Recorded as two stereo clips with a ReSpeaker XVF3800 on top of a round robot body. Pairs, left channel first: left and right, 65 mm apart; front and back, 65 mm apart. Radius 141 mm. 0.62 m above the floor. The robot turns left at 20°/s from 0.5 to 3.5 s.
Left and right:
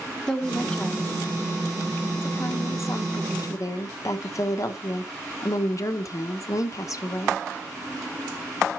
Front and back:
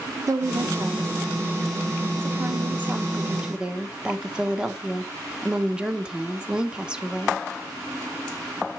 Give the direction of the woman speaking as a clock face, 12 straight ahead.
6 o'clock.